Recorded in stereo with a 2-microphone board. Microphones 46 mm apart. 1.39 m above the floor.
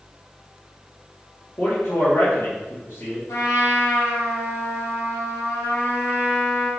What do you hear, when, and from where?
1.6 s a man speaking: 80° left, 2 m
3.3 s a trumpet: 80° left, 2 m